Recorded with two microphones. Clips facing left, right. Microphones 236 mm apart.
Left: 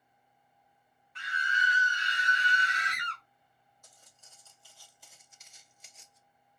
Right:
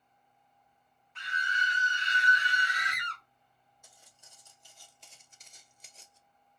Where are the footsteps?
10° right (ahead or behind), 1.4 m; by 6.2 s 30° right (ahead or behind), 0.7 m.